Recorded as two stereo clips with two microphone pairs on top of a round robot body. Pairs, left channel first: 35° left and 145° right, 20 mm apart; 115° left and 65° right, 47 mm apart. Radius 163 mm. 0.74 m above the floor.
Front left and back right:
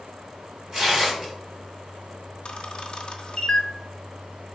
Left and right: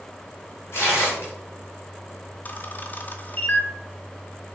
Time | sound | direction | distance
0.7 | tearing paper | 140° left | 0.9 m
2.5 | a camera shutter | 80° left | 0.5 m